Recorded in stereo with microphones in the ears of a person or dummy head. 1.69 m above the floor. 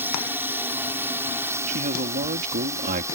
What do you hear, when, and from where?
0.0 s a drone: 15° right (ahead or behind)
1.7 s a man speaking: 55° right (ahead or behind)